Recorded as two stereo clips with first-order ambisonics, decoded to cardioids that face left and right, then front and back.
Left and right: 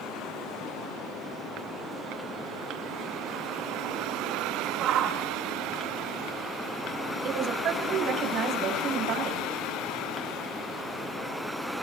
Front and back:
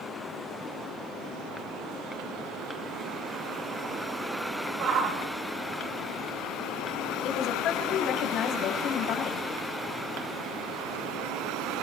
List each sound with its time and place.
4.8 s a shout: 135° right, 2 m
7.2 s a woman speaking: 45° right, 4 m